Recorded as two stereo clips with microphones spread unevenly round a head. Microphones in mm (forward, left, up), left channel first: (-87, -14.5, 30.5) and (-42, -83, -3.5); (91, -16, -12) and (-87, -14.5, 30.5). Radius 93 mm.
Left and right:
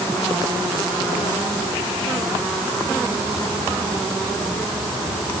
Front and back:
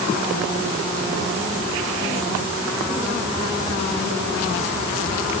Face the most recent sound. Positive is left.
No sound to turn to.